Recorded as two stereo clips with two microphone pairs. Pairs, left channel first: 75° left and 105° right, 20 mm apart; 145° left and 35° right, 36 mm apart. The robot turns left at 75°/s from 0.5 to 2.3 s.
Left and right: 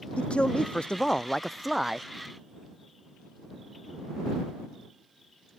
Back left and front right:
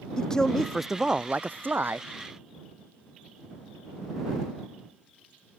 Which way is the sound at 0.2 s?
70° left.